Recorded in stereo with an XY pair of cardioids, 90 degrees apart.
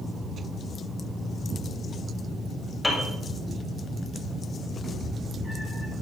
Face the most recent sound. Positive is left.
turn(degrees=-35)